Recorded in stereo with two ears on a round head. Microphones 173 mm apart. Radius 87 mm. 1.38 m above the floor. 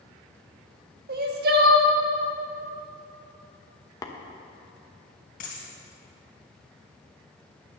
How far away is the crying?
About 1.3 m.